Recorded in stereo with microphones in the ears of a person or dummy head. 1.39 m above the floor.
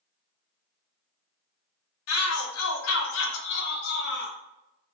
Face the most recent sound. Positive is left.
turn(degrees=55)  # may be behind; listen again after turning